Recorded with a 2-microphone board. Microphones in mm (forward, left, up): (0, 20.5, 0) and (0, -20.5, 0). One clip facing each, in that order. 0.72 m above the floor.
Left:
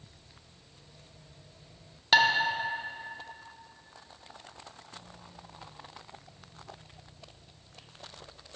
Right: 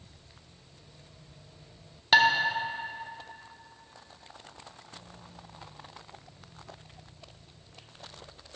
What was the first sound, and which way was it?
Dishes clattering, 5° right (ahead or behind).